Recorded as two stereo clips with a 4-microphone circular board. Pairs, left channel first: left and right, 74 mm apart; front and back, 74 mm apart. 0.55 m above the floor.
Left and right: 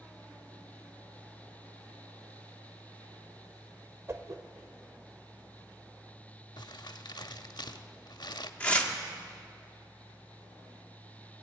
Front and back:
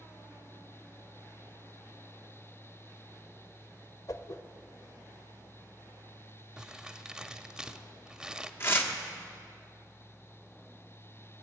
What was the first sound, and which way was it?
A whoosh, 35° right.